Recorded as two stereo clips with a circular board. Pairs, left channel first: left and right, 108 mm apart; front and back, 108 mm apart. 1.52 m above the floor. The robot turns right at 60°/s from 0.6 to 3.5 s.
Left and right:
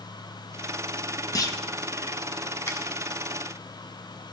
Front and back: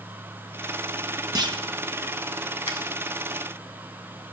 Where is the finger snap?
30° left, 1.8 m; by 2.8 s 35° left, 1.8 m.